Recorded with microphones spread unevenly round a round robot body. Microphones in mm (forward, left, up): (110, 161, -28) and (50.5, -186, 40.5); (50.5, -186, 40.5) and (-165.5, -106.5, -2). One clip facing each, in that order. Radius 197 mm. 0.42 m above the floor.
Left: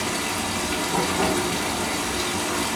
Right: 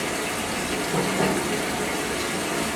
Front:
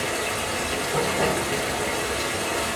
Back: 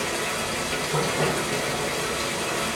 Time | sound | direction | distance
0.0 | running water | 90° left | 0.8 m